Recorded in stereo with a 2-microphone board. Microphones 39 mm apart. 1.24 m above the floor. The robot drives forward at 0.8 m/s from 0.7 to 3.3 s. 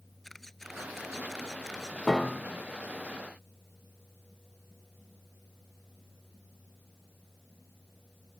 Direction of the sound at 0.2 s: 5° left (ahead or behind).